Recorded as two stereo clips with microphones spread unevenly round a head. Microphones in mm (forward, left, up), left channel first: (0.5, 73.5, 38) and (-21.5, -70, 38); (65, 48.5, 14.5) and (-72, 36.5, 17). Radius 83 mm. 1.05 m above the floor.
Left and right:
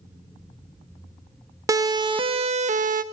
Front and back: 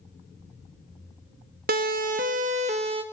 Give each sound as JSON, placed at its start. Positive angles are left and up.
{"t": 1.7, "sound": "a siren", "azimuth_deg": -165, "distance_m": 2.0}